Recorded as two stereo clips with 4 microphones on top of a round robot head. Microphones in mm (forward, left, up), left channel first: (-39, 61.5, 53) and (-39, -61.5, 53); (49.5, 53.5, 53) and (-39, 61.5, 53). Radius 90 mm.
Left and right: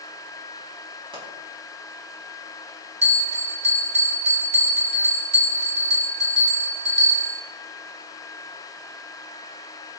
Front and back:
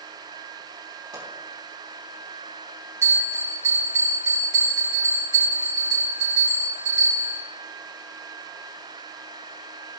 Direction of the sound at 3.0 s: 120° right.